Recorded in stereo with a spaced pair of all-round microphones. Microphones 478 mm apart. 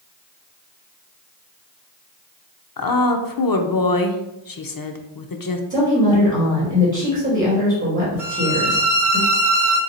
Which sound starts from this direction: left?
A woman speaking, at 2.8 s.